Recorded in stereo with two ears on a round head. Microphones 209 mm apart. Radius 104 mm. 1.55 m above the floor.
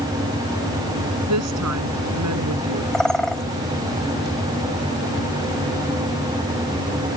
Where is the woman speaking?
85° right.